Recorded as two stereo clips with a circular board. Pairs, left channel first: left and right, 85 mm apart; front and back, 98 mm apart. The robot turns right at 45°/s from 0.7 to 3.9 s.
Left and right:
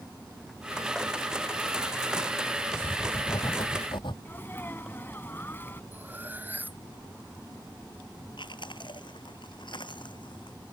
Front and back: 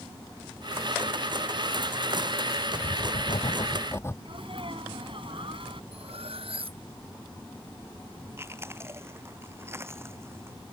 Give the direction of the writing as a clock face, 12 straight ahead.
12 o'clock.